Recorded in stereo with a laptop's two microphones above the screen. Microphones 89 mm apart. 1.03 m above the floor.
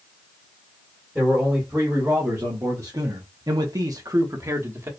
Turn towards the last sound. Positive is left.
turn(degrees=-30)  # may be behind; listen again after turning